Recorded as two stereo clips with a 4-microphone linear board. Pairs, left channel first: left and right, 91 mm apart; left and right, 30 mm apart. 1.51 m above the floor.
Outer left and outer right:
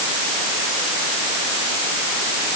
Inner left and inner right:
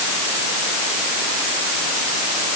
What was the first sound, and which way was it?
Only background noise.